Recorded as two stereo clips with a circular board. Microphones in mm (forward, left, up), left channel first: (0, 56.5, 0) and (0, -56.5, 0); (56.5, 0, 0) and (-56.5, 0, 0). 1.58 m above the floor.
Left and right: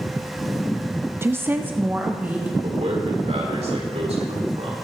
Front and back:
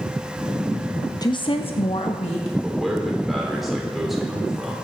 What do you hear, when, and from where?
1.2 s a woman speaking: 35° right, 0.5 m; by 2.5 s 15° right, 1.9 m
2.6 s a man speaking: 90° right, 4 m